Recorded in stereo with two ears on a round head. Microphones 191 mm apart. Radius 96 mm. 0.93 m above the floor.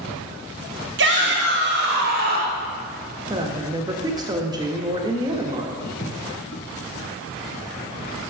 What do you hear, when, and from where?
1.0 s a shout: 55° right (ahead or behind), 1.6 m; by 2.6 s 45° right (ahead or behind), 2 m
3.3 s a woman speaking: 20° right (ahead or behind), 1.0 m
5.8 s footsteps: 70° left (ahead or behind), 3.5 m; by 8.3 s 35° left (ahead or behind), 2 m